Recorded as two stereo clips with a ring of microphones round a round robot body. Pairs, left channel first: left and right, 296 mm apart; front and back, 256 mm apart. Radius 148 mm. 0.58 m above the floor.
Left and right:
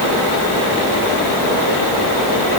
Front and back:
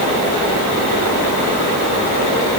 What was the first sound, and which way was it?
Only background noise.